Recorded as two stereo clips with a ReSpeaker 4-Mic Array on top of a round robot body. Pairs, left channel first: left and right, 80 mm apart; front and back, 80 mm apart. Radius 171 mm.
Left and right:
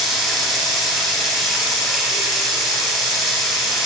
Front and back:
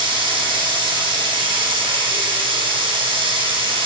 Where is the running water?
Straight behind, 4 m.